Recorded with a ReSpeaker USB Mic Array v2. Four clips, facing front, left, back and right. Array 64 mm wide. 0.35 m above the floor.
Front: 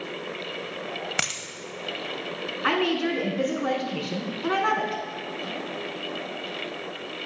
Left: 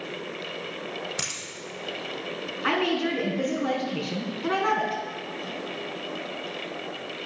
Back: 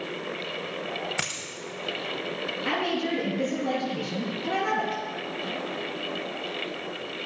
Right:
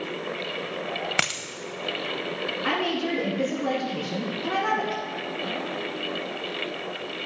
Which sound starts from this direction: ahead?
A woman speaking, at 2.6 s.